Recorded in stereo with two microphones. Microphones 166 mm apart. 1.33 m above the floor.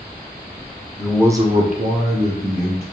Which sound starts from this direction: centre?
A man speaking, at 1.0 s.